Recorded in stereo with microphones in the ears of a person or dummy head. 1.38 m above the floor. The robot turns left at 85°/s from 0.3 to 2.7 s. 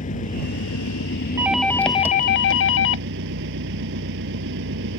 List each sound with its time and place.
0.0 s an engine running: 140° left; by 5.0 s 65° right
1.4 s a doorbell: 165° right; by 3.1 s 85° left